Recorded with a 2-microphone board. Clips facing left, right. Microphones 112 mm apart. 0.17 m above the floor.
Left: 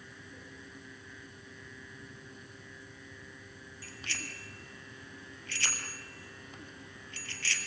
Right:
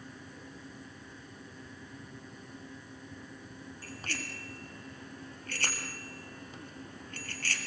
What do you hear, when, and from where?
3.8 s a bicycle bell: 45° right (ahead or behind), 3 m